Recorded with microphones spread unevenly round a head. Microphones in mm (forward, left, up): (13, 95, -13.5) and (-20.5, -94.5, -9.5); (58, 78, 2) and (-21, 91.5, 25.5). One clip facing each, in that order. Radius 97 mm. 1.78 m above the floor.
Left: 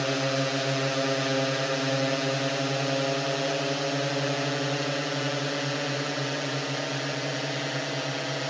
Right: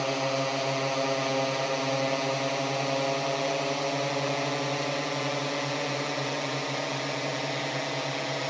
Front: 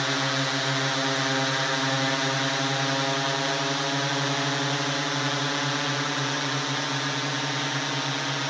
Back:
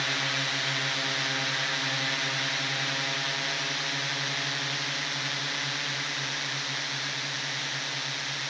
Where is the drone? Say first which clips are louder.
Left 1 dB, front 5 dB; 15° left; by 8.5 s straight ahead.